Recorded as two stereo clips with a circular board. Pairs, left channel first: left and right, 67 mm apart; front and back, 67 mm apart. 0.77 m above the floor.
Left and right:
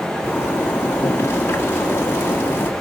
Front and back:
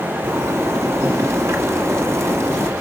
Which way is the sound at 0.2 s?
140° left.